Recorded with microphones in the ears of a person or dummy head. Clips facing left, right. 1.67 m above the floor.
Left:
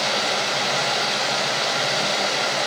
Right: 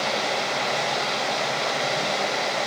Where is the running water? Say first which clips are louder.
Left 1 dB; centre (ahead or behind), 0.7 m.